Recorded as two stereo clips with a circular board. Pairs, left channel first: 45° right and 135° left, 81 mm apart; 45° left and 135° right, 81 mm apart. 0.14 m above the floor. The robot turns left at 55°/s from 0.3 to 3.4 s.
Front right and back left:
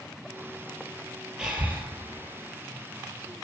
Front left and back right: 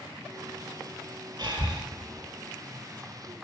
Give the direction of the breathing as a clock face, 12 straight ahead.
5 o'clock.